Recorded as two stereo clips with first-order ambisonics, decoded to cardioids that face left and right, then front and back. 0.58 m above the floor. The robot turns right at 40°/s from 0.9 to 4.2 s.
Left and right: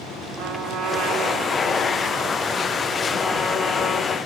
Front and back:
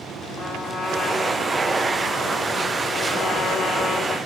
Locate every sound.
0.4 s a trumpet: 100° right, 1.3 m; by 4.2 s 35° left, 1.3 m